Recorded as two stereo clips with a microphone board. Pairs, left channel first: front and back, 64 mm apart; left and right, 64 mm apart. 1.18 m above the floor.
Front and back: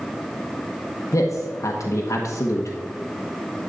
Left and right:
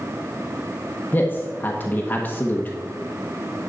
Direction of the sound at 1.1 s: 30° left.